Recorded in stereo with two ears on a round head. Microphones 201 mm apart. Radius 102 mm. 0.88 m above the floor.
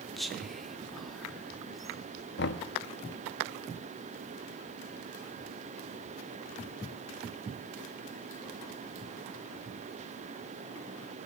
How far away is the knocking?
About 1.0 m.